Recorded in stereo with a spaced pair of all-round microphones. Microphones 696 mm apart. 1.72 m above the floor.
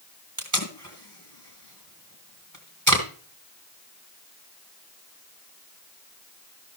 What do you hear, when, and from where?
0.4 s tape being pulled: 25° right (ahead or behind), 2.5 m